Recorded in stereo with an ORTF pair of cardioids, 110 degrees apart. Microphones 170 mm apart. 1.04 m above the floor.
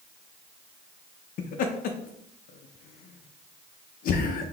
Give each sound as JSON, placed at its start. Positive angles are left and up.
{"t": 1.4, "sound": "laughter", "azimuth_deg": 60, "distance_m": 0.5}